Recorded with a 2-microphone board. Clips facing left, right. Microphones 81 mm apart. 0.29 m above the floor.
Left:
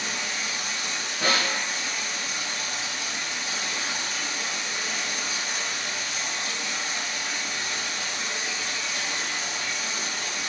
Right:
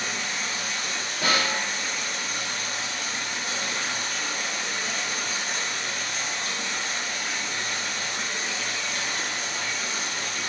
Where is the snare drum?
30° left (ahead or behind), 1.9 m.